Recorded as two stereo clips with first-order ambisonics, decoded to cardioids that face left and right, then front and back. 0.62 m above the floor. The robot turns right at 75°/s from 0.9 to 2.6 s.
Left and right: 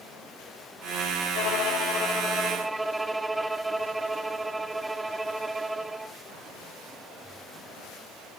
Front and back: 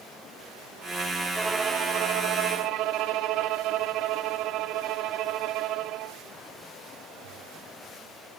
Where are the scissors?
I don't hear scissors.